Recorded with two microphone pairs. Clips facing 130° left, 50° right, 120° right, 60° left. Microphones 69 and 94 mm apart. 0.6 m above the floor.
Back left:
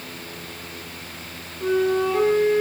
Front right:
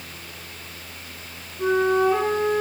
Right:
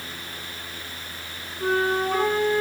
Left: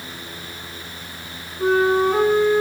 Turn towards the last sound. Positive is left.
turn(degrees=-5)